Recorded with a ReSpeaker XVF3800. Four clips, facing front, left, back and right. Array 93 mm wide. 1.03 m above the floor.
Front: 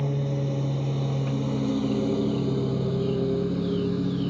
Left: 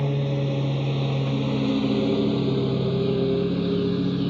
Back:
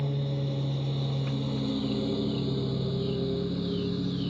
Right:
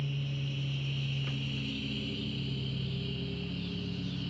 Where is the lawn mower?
75° left.